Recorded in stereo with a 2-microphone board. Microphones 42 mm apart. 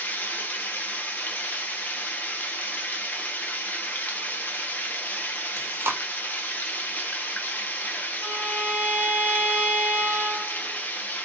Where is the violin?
10° left (ahead or behind), 1.1 m.